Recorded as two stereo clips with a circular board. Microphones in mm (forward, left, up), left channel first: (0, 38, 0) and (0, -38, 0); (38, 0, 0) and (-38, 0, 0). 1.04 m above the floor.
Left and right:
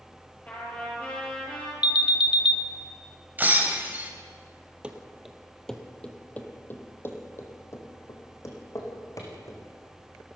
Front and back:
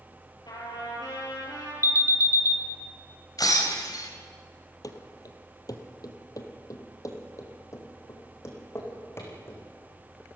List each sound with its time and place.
0.5 s a trumpet: 20° left, 8 m
1.8 s an alarm: 25° right, 1.3 m
3.4 s breaking glass: 25° right, 3 m
4.8 s running footsteps: 20° right, 1.9 m; by 9.6 s 50° left, 4.5 m